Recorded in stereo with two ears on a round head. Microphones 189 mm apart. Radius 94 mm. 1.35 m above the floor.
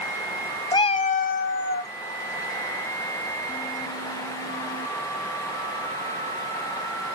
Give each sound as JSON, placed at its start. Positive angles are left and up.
{"t": 0.7, "sound": "a cat meowing", "side_deg": 20, "distance_m": 0.5}